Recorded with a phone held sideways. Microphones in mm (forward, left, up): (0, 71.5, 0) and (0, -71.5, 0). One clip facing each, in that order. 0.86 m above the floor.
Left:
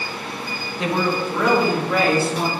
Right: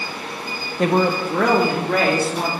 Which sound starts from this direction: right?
A woman speaking, at 0.8 s.